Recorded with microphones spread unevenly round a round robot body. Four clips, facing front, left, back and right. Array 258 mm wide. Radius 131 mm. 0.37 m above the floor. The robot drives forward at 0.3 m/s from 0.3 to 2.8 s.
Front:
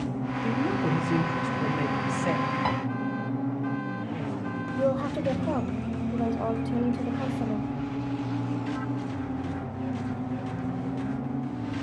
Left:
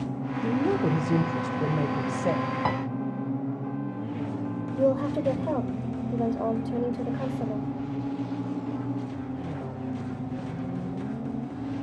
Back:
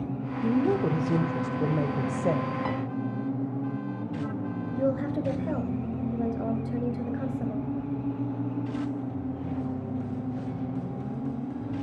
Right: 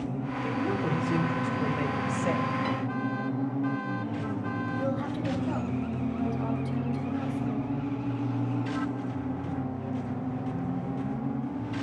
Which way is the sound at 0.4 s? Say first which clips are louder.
Left 6 dB, back 4 dB; 130° left.